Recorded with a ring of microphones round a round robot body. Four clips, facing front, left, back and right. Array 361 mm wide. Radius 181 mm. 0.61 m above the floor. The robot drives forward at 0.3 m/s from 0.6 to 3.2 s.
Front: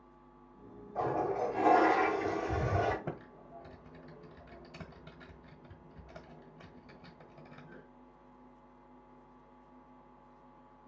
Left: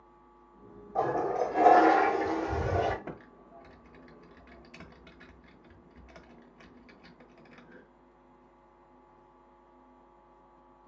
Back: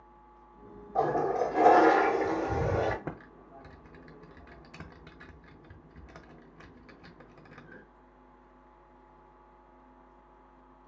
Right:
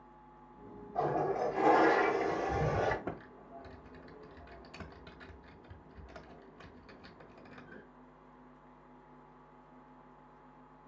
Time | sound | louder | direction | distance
0.9 | a toilet flushing | left 3 dB, back 5 dB | 155° left | 0.8 m
3.0 | typing on a keyboard | right 1 dB, back 1 dB | 165° right | 0.7 m